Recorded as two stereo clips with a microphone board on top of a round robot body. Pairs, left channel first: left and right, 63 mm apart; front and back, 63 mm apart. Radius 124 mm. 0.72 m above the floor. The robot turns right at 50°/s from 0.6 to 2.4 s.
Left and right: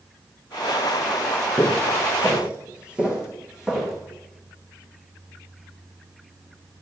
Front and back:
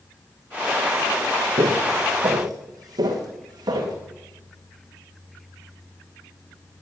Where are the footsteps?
165° left, 1.7 m; by 3.9 s 170° right, 3 m.